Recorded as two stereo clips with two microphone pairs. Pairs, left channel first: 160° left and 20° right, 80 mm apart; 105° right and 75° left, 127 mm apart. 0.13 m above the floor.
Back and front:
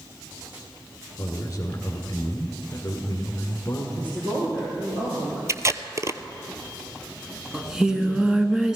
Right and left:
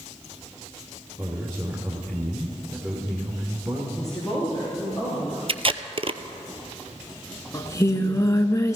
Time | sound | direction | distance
1.2 | a man speaking | 135° left | 1.7 m
4.0 | a woman speaking | 20° right | 4.5 m
5.5 | tape being pulled | 35° left | 0.6 m
7.5 | singing | 100° right | 0.8 m